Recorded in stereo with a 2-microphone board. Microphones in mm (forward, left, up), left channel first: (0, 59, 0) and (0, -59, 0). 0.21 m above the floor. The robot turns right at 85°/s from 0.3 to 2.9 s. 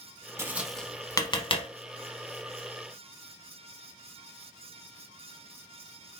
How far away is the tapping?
About 0.7 m.